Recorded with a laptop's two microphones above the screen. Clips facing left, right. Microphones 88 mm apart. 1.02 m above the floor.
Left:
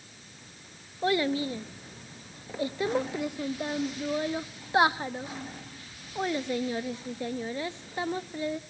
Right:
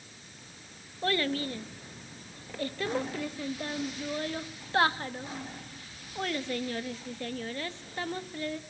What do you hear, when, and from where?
1.0 s a child speaking: 20° left (ahead or behind), 0.8 m